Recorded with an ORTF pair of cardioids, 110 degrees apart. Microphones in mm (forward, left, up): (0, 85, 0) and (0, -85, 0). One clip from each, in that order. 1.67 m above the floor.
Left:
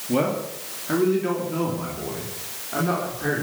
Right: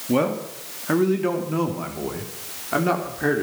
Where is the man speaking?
30° right, 3 m; by 3.4 s 55° right, 4.5 m.